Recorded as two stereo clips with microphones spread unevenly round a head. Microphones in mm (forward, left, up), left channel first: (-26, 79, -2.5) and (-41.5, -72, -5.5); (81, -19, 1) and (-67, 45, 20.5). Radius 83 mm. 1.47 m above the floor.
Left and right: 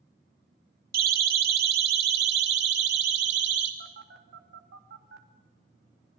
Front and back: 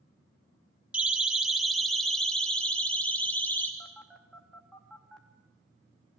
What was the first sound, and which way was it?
A siren, 120° right.